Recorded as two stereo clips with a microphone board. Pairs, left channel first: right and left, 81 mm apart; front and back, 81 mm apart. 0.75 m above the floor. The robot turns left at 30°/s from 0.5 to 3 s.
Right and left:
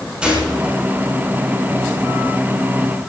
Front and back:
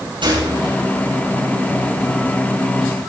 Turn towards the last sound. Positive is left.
turn(degrees=95)